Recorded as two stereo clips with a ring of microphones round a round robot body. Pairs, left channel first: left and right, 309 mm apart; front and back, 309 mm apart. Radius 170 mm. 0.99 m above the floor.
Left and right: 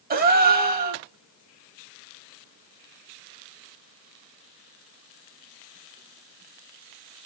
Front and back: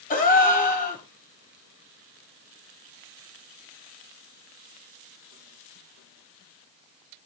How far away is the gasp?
About 1.0 m.